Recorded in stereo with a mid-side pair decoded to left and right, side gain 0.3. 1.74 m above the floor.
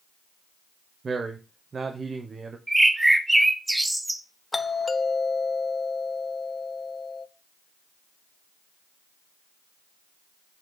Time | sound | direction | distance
1.0 | a man speaking | 55° right | 1.2 m
2.7 | a bird | 20° right | 1.3 m
4.5 | a doorbell | 30° left | 0.9 m